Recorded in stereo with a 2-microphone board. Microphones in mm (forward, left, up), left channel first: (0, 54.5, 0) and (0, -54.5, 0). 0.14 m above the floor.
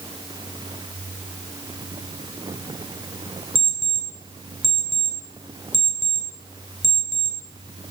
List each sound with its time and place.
3.5 s an alarm clock: 55° right (ahead or behind), 2.5 m